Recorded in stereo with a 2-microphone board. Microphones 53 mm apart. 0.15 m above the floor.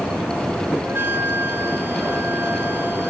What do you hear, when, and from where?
0.8 s a flute: 50° right (ahead or behind), 0.8 m